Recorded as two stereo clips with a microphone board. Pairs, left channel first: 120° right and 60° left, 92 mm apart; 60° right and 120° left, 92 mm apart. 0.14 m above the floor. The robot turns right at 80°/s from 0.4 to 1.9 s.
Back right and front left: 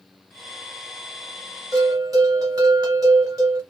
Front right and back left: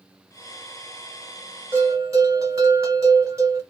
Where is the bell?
65° left, 1.4 m; by 3.6 s 80° left, 1.4 m.